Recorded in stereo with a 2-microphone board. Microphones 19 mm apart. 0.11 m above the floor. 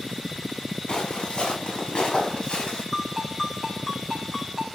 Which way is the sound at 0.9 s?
55° left (ahead or behind).